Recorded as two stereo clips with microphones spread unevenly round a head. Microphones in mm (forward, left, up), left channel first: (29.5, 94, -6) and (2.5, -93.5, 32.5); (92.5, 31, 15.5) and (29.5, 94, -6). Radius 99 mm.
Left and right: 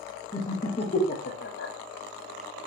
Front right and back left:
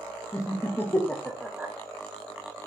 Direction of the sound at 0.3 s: 5° left.